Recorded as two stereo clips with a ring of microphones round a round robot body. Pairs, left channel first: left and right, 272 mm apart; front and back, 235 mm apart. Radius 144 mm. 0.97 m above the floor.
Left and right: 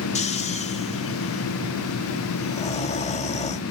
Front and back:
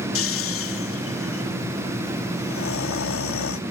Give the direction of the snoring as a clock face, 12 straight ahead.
11 o'clock.